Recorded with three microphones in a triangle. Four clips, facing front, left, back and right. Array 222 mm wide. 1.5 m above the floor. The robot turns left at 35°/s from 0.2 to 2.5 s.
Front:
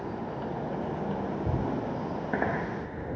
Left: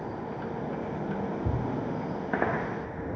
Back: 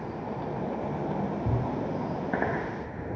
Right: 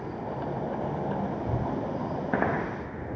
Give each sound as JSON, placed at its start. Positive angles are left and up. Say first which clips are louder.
{"t": 1.4, "sound": "a thud", "louder": "right 1 dB, even", "azimuth_deg": 100, "distance_m": 4.5}